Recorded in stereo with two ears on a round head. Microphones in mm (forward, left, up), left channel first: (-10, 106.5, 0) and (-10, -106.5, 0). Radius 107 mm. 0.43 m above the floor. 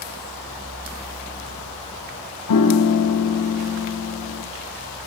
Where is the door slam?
No door slam in this recording.